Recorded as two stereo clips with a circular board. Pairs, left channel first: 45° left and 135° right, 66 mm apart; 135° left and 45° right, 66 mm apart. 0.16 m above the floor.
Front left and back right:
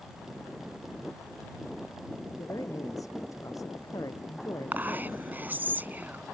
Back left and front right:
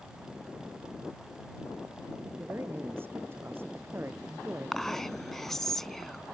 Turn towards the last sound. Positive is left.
turn(degrees=-145)